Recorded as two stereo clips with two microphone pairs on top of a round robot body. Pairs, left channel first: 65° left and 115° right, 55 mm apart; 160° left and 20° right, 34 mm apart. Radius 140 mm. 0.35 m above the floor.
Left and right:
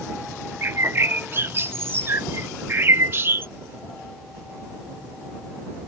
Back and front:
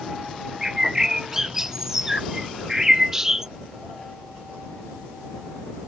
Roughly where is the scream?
I don't hear a scream.